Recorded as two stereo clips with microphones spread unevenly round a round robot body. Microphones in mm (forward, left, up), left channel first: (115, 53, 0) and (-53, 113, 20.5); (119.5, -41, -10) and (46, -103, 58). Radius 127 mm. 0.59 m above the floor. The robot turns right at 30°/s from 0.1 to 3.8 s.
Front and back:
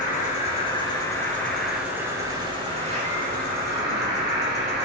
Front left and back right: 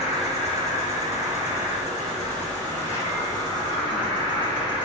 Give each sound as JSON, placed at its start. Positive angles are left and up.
{"t": 0.0, "sound": "an insect", "azimuth_deg": 25, "distance_m": 3.0}